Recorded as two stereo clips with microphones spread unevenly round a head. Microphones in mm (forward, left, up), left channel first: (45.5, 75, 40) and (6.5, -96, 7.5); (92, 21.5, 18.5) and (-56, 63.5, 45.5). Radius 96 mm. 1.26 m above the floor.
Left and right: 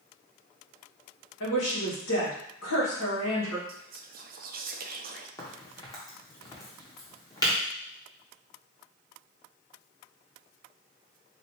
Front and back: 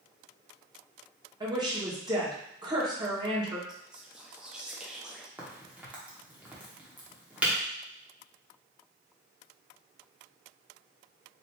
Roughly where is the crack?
Left.